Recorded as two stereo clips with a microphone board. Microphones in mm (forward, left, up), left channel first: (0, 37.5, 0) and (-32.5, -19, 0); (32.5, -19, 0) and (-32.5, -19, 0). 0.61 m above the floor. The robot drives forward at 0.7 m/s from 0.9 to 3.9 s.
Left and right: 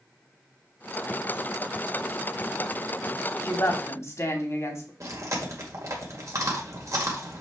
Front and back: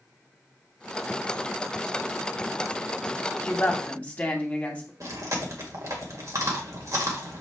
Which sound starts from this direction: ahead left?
A woman speaking, at 3.4 s.